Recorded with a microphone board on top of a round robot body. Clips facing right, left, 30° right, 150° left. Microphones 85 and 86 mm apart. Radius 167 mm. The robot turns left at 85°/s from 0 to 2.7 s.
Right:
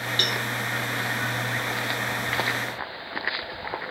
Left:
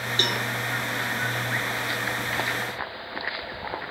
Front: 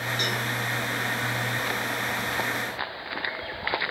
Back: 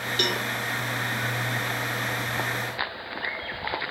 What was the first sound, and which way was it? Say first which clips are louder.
A cowbell: left 2 dB, back 4 dB; 155° left.